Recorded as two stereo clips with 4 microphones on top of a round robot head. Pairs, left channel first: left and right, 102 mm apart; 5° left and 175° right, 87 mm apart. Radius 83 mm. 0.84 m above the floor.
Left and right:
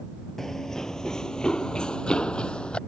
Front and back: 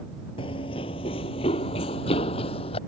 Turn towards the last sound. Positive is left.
turn(degrees=10)